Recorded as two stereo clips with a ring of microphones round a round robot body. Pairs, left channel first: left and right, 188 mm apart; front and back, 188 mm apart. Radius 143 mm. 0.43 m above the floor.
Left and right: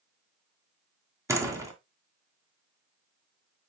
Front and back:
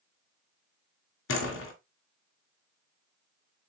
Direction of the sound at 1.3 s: 15° right.